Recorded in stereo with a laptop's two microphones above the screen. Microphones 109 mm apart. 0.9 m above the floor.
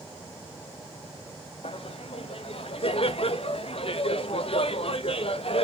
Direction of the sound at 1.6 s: 60° left (ahead or behind).